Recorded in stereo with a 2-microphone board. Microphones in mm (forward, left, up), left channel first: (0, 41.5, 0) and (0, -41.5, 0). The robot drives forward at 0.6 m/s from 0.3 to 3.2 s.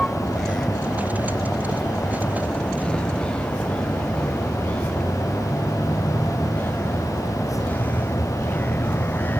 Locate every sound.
0.0 s a vehicle: 5° left (ahead or behind); by 9.4 s 25° left (ahead or behind)